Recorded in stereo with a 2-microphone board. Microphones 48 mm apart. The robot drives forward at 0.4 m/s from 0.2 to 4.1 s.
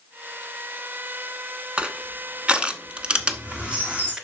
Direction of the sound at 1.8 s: 25° right (ahead or behind).